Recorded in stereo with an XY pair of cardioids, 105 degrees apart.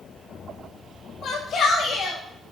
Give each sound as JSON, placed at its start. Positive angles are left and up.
{"t": 1.2, "sound": "a shout", "azimuth_deg": 60, "distance_m": 6.5}